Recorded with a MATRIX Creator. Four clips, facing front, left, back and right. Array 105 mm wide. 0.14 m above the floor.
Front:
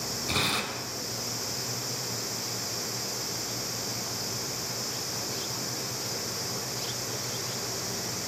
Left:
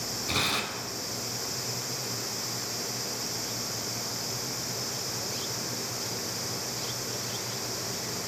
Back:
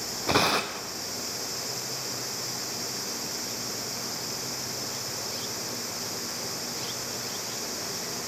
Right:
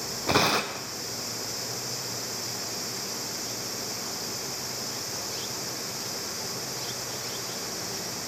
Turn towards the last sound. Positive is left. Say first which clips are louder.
# right 8 dB, back 7 dB
turn(degrees=-130)